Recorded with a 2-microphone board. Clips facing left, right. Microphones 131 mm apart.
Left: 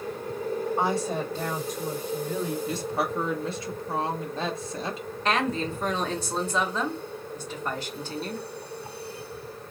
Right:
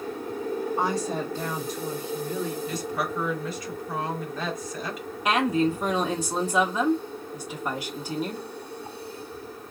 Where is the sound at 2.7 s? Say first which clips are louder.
Left 1 dB; 30° left (ahead or behind), 0.9 m.